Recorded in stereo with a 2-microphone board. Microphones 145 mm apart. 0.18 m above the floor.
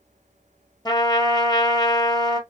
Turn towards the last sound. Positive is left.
turn(degrees=30)  # may be behind; listen again after turning